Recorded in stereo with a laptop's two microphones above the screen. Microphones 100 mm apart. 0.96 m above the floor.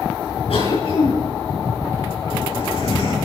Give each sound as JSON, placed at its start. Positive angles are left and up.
{"t": 0.5, "sound": "a cough", "side_deg": 80, "distance_m": 4.0}